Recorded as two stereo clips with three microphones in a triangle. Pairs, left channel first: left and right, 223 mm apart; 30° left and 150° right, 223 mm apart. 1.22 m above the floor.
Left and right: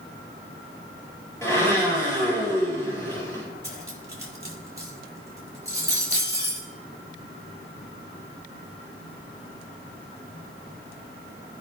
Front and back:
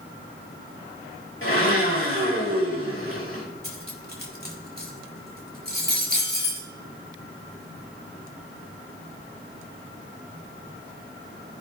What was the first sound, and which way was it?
A blender, 15° left.